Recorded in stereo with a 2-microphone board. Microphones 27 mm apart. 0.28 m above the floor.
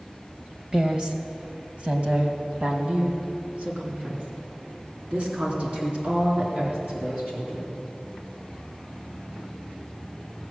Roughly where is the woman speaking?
Right.